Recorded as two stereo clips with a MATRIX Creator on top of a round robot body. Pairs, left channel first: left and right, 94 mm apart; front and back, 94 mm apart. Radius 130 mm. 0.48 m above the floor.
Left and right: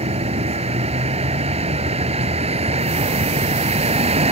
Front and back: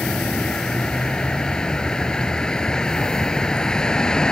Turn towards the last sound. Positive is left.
turn(degrees=-80)